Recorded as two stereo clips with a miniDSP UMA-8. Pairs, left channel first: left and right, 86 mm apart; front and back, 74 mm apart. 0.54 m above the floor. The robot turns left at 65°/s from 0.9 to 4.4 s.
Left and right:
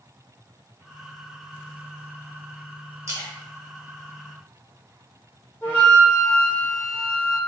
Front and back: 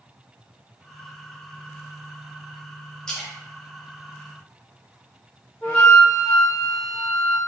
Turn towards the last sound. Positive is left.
turn(degrees=50)